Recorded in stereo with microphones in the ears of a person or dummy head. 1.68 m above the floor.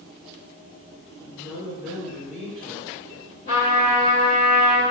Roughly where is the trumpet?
Centre.